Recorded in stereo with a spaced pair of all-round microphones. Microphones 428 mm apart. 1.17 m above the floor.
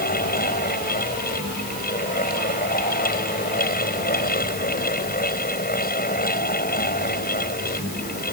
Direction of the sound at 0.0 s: 20° left (ahead or behind).